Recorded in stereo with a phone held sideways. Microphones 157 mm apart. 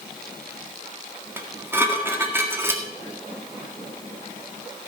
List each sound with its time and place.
1.4 s dishes clattering: 15° right (ahead or behind), 1.7 m